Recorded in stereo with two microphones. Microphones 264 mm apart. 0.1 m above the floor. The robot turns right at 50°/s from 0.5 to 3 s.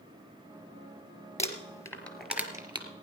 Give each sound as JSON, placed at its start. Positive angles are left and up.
{"t": 1.4, "sound": "crumpling", "side_deg": 25, "distance_m": 1.4}